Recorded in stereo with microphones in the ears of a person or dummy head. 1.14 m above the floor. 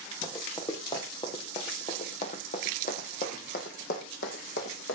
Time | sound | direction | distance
0.2 | running footsteps | 20° left (ahead or behind) | 4.5 m